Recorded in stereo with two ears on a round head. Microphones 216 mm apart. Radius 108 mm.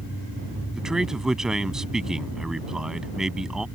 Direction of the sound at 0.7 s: Centre (ahead or behind).